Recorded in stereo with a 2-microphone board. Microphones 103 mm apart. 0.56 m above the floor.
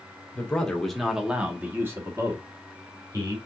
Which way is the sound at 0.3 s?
15° left (ahead or behind).